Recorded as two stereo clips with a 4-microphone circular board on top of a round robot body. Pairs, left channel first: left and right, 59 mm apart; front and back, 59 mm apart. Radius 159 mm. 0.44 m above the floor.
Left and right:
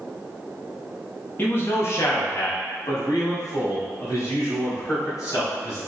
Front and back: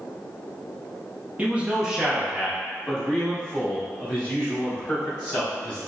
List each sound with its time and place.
1.4 s a man speaking: 125° left, 0.9 m; by 5.8 s 60° left, 2.5 m